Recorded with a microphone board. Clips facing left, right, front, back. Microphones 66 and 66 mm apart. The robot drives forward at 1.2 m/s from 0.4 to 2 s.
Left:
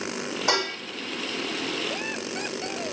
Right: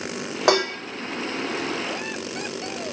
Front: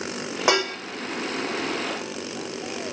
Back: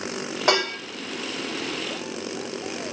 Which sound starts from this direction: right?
Dishes clattering, at 0.5 s.